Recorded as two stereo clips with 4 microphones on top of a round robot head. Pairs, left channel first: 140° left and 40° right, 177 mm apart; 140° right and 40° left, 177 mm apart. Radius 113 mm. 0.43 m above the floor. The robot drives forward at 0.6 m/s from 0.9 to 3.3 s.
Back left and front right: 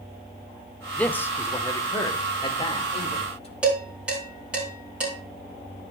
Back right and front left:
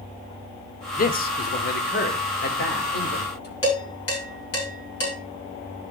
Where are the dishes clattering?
125° right, 5 m.